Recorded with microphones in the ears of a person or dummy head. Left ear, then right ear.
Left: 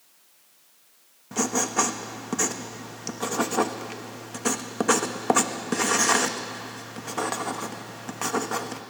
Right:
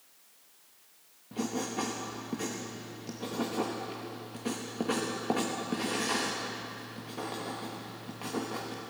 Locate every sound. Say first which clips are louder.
1.3 s writing: left 10 dB; 40° left (ahead or behind), 1.1 m